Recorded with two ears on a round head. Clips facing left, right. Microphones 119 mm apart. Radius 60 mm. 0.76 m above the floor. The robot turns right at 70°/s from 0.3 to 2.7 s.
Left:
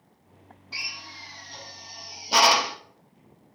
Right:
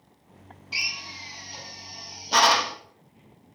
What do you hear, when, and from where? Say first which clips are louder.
0.7 s a drill: right 3 dB; 20° right (ahead or behind), 0.6 m; by 2.8 s 15° left (ahead or behind), 0.6 m